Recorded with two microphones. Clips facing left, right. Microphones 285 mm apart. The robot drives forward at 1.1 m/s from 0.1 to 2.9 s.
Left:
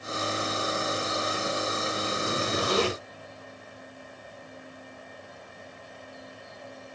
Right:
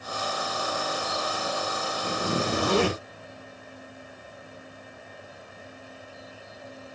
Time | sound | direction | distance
2.0 | a zipper | 45° right (ahead or behind) | 3 m